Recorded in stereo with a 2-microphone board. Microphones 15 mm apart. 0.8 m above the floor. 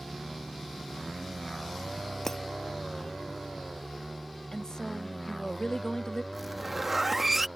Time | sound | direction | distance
2.2 | breaking glass | 25° left (ahead or behind) | ?
4.5 | a woman speaking | 50° left (ahead or behind) | ?
6.3 | a zipper | 10° right (ahead or behind) | ?